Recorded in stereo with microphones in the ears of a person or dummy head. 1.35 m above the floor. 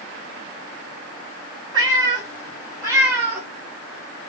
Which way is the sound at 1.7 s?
15° right (ahead or behind).